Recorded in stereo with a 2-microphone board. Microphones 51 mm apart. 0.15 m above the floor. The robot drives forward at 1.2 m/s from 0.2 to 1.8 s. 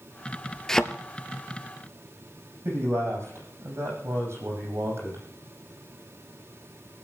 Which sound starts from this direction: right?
A man speaking, at 2.6 s.